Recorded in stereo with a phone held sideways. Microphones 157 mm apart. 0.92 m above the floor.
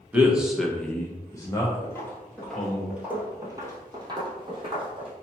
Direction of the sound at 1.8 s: 15° left (ahead or behind).